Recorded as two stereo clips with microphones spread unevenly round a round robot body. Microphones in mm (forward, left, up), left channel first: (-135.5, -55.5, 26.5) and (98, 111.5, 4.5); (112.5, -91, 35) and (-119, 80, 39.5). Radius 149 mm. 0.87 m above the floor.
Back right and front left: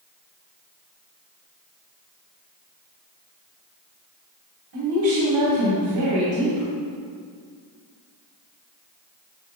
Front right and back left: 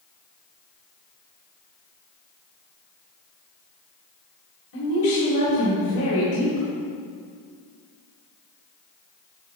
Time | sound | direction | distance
4.7 | a woman speaking | 5° left | 2.5 m